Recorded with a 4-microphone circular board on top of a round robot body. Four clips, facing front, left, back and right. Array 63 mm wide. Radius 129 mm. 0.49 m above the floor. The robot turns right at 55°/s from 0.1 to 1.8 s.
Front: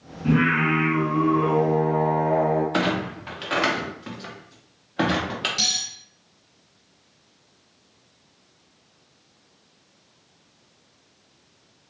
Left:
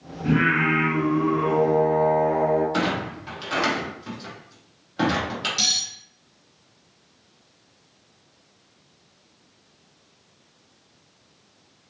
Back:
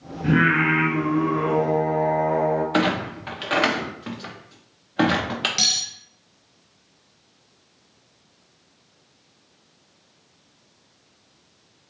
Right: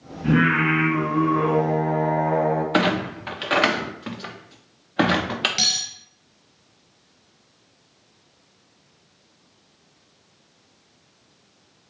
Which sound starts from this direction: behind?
Singing, at 0.2 s.